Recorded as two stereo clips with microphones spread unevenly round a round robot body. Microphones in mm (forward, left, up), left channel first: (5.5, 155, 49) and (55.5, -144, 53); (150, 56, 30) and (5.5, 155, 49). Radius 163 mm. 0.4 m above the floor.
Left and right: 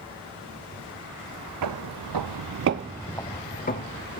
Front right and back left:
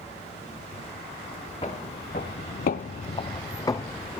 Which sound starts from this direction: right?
Footsteps, at 1.6 s.